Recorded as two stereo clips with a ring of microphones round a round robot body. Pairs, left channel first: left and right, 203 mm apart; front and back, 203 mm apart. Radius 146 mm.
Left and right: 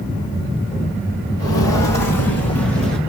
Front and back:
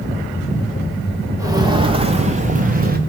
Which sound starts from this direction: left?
Footsteps, at 1.4 s.